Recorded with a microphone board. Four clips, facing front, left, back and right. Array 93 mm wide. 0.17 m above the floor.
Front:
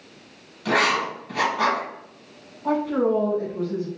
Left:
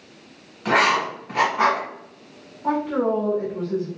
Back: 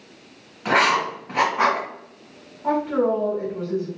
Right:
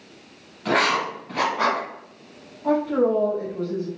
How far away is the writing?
About 1.3 m.